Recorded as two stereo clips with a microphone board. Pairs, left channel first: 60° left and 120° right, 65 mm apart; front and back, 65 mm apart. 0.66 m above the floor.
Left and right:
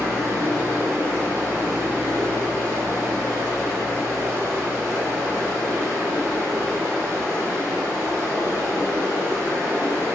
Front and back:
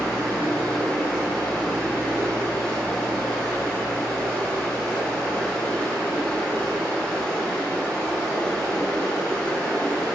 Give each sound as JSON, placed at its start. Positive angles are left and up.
{"t": 0.0, "sound": "running water", "azimuth_deg": -70, "distance_m": 0.9}